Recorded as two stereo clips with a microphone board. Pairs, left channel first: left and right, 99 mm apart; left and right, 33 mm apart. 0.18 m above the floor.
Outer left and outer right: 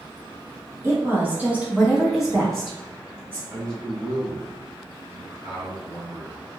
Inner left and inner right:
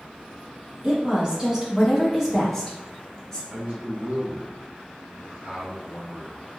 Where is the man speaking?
45° right (ahead or behind), 1.8 m.